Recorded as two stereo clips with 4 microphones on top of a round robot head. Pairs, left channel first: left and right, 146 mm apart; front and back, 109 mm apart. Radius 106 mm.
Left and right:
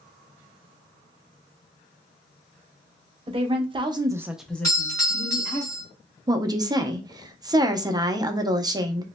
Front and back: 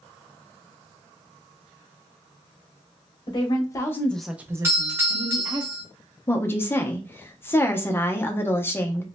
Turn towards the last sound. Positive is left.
turn(degrees=-50)